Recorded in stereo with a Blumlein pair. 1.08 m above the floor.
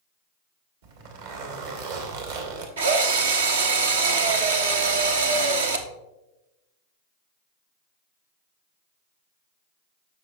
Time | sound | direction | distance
0.8 | a zipper | 60° right | 2.5 m
2.8 | a drill | 65° right | 1.2 m